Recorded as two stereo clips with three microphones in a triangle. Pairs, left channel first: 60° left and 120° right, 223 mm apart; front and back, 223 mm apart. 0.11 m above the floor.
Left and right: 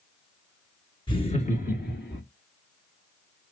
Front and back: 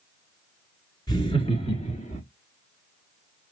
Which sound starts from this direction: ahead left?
Laughter, at 1.1 s.